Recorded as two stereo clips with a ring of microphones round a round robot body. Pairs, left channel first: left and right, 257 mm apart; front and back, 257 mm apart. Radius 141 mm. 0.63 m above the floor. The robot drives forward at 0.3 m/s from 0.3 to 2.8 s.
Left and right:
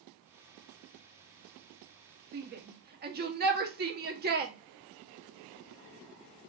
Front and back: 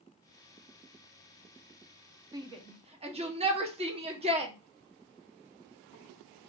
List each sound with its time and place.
2.3 s a shout: 110° right, 0.9 m; by 4.5 s 125° right, 0.9 m